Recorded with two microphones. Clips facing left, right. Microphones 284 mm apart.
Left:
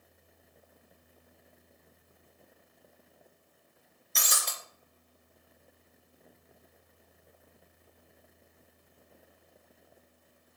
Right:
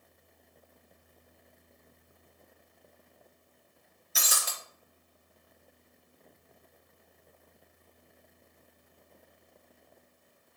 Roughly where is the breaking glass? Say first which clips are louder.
Even; centre.